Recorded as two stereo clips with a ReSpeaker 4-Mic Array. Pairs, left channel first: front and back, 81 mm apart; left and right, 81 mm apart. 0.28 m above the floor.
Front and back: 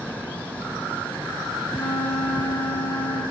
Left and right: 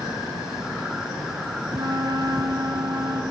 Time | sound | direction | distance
1.7 | a flute | 60° right | 2.5 m